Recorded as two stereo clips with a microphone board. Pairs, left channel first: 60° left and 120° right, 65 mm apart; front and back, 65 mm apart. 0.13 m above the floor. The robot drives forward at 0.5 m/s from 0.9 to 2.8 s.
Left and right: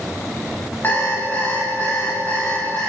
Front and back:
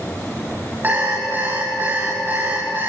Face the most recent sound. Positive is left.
turn(degrees=125)